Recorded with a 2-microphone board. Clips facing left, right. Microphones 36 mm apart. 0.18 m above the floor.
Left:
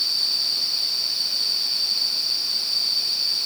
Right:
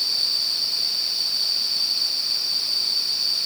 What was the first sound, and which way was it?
Only background noise.